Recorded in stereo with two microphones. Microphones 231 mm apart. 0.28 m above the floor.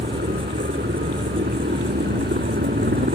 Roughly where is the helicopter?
Right.